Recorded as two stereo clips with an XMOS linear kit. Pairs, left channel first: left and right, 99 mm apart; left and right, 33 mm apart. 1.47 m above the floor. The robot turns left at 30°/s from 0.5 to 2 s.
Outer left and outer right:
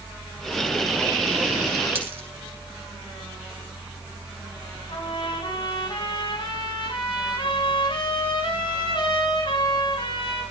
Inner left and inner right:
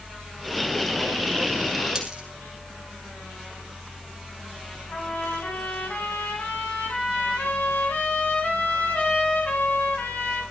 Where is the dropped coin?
20° right (ahead or behind), 5.5 m; by 2.2 s 25° right (ahead or behind), 5.5 m.